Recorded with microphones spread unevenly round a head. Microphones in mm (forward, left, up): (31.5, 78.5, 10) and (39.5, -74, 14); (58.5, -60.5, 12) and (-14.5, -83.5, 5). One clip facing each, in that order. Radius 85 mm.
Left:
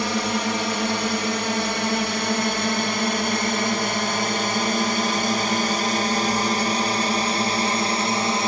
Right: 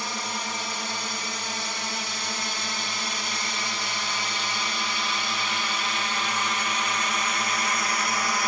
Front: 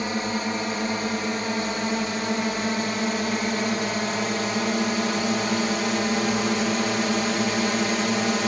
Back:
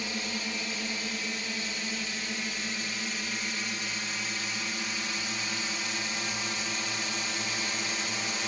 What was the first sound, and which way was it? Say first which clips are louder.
A drone: left 10 dB, front 9 dB; 85° left.